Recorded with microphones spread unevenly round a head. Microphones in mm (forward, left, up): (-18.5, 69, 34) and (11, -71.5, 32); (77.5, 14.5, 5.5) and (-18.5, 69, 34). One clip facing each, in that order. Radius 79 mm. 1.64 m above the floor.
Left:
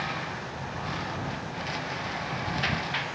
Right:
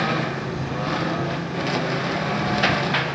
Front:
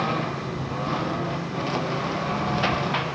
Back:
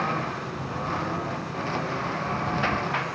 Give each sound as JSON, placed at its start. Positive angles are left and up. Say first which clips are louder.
{"t": 0.0, "sound": "a lawn mower", "louder": "right 10 dB, front 2 dB", "azimuth_deg": -105}